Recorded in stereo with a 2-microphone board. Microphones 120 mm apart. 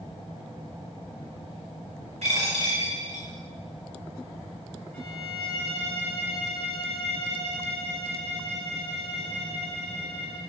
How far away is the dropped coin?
About 1.4 m.